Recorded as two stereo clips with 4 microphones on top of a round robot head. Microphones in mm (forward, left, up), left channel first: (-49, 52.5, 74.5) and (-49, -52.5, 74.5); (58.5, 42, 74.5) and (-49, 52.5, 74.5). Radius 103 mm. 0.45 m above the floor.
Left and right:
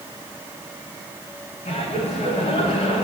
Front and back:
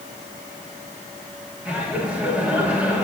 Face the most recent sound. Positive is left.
turn(degrees=95)